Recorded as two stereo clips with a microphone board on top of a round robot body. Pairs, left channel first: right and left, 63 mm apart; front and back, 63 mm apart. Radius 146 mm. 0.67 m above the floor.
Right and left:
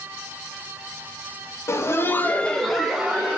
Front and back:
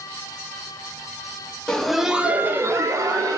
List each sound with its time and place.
1.7 s laughter: 75° right, 0.7 m; by 3.4 s 165° left, 0.9 m